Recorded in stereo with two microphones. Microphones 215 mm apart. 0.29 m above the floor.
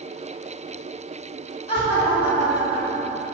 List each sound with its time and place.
1.7 s laughter: 25° left (ahead or behind), 2.5 m